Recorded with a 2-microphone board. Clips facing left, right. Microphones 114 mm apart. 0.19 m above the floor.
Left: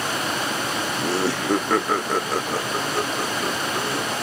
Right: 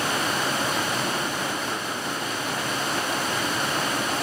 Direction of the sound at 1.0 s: 80° left.